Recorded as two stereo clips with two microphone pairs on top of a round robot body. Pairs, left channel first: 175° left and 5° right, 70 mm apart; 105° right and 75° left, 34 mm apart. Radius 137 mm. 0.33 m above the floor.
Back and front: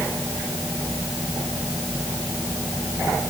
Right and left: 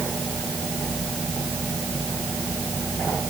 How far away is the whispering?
I don't hear whispering.